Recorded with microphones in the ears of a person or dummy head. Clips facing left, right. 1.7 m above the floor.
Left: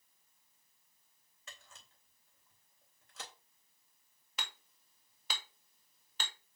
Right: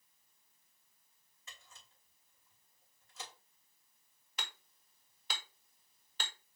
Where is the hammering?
60° left (ahead or behind), 2.5 m.